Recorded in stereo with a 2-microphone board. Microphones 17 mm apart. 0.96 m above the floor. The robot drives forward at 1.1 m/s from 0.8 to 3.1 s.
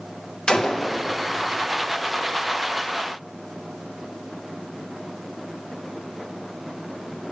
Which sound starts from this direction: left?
A gunshot, at 0.5 s.